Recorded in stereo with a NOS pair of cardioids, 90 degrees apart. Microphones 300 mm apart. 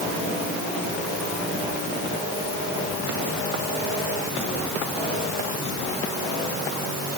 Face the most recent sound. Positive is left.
No sound to turn to.